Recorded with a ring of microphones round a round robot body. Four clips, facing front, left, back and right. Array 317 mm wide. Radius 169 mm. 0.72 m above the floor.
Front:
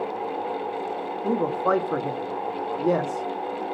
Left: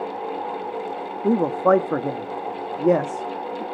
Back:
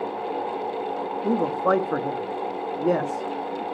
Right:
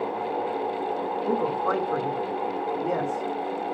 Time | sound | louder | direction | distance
1.2 | a man speaking | left 9 dB, back 1 dB | 100° left | 1.3 m